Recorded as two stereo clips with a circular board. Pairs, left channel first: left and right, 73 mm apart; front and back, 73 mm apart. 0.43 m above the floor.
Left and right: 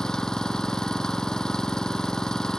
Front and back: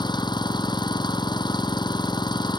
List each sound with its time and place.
0.0 s an engine running: 10° left